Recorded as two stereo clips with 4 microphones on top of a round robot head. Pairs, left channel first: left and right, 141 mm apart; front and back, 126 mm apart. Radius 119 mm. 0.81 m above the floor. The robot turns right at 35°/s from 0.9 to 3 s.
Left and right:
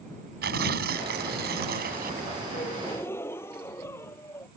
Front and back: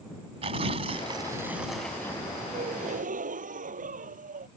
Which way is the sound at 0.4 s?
120° right.